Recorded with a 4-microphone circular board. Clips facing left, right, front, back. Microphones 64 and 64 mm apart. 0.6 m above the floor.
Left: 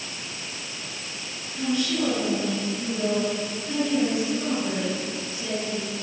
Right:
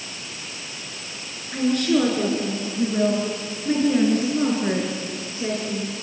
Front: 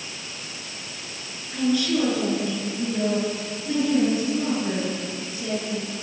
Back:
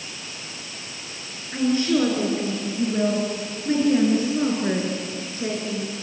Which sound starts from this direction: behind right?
A woman speaking, at 1.5 s.